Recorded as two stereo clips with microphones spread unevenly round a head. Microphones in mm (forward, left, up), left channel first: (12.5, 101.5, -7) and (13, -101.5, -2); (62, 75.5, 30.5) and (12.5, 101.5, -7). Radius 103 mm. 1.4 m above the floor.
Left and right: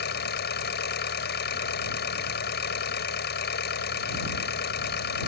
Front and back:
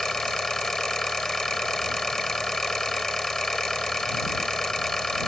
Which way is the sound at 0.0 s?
50° left.